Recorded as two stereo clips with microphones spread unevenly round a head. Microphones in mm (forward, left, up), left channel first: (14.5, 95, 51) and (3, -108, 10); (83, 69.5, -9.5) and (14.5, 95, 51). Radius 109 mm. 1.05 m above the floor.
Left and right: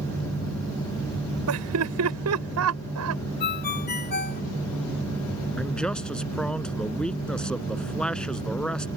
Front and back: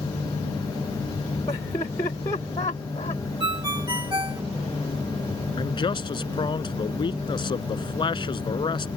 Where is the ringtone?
135° left.